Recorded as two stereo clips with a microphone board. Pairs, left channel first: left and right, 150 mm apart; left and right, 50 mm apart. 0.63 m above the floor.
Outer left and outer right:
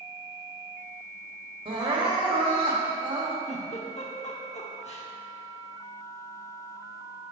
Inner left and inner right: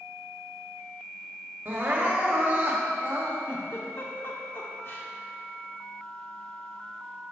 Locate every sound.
1.6 s crying: 35° right (ahead or behind), 1.1 m
3.5 s a giggle: 50° left (ahead or behind), 1.0 m